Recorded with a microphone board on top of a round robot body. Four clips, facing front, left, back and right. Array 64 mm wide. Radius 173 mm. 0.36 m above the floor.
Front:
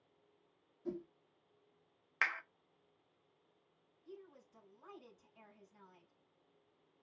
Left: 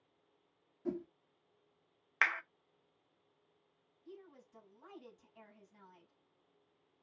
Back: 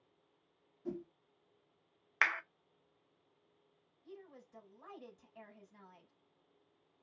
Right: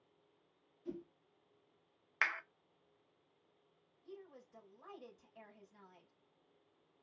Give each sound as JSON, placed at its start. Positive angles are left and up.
{"t": 0.8, "sound": "a whoosh", "azimuth_deg": 100, "distance_m": 0.6}
{"t": 2.2, "sound": "a clap", "azimuth_deg": 135, "distance_m": 0.7}
{"t": 4.0, "sound": "a woman speaking", "azimuth_deg": -170, "distance_m": 4.0}